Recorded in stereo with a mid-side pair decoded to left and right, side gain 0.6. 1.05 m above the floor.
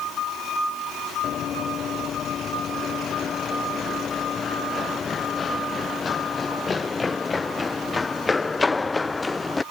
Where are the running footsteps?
45° left; by 9.6 s 15° left.